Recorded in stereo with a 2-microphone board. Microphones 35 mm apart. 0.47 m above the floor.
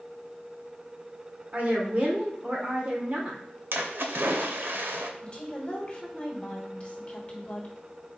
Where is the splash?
75° right (ahead or behind), 0.6 m.